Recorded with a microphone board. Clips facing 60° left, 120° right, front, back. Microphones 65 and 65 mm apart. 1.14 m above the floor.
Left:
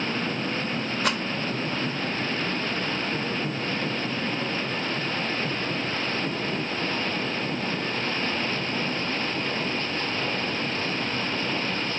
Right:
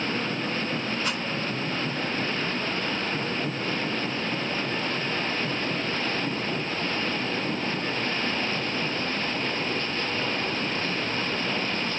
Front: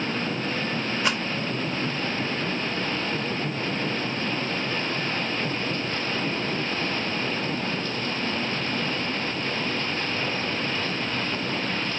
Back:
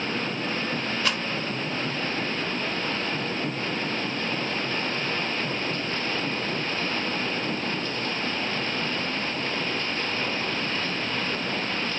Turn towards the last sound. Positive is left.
turn(degrees=70)